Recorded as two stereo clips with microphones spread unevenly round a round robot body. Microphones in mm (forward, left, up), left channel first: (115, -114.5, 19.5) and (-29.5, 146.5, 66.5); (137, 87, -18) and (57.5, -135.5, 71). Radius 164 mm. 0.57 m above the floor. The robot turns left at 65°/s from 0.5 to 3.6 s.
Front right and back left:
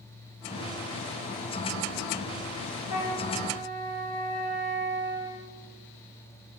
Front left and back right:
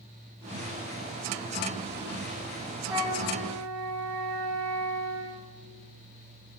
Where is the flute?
35° right, 1.7 m; by 5.5 s 80° right, 1.7 m.